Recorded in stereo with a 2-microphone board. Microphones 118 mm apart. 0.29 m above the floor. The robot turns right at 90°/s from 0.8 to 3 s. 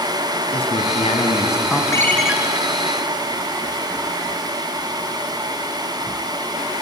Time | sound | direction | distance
0.5 | a man speaking | 80° left | 2.5 m
1.9 | a ringtone | 150° left | 2 m